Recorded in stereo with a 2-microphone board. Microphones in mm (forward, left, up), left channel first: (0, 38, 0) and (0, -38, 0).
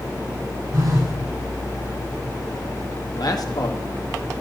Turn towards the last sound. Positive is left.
turn(degrees=60)  # may be behind; listen again after turning